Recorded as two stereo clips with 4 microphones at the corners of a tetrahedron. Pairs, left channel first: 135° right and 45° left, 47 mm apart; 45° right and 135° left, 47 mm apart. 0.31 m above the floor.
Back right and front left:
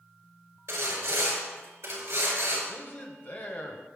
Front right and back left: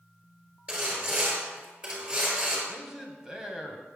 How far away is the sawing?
About 5 m.